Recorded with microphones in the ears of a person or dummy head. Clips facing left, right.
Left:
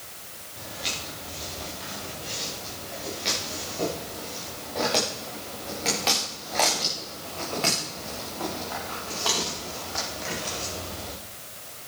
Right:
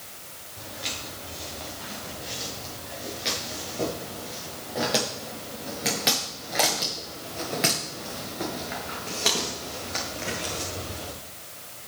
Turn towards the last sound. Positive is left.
turn(degrees=-40)  # may be behind; listen again after turning